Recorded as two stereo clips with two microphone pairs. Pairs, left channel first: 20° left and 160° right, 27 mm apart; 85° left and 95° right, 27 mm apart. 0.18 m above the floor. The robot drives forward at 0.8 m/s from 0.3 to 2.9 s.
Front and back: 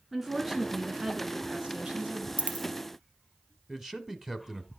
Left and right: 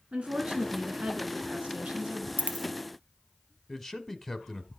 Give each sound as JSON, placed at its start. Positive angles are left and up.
{"t": 0.1, "sound": "a woman speaking", "azimuth_deg": -80, "distance_m": 2.5}
{"t": 2.4, "sound": "a dropped coin", "azimuth_deg": -120, "distance_m": 0.6}
{"t": 3.7, "sound": "a man speaking", "azimuth_deg": 155, "distance_m": 1.0}